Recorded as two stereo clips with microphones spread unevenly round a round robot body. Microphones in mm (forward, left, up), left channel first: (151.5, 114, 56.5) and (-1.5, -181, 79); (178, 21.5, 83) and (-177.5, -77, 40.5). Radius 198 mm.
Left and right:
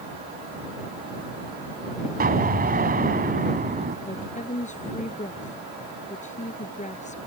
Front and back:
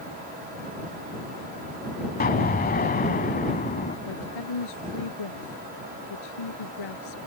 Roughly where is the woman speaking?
Ahead.